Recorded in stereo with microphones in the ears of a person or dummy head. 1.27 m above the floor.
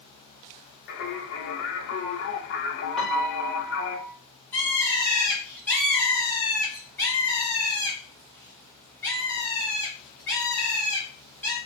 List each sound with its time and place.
0.9 s singing: 75° left (ahead or behind), 1.7 m
3.0 s a piano: 5° left (ahead or behind), 1.1 m
4.5 s a bird: 15° left (ahead or behind), 1.7 m